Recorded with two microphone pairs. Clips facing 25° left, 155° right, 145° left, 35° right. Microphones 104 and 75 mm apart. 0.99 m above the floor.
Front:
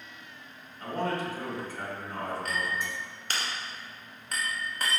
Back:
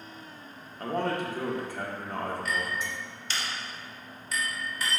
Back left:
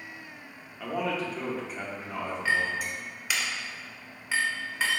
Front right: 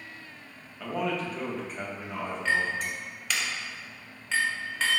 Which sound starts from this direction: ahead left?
A clink, at 2.5 s.